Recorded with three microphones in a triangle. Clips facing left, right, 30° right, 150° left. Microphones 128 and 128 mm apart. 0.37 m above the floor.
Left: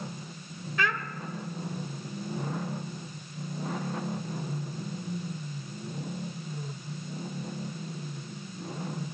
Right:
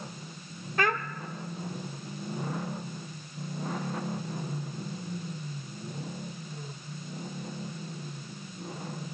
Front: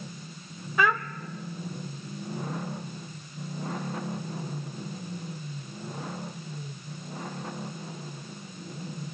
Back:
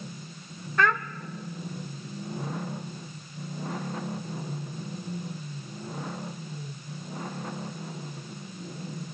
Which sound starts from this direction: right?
A child speaking, at 0.8 s.